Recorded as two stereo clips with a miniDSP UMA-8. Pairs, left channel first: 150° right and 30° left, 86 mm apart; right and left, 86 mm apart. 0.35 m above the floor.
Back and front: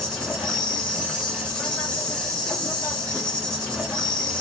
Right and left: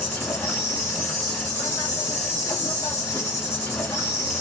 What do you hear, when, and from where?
0.0 s an insect: 80° right, 1.3 m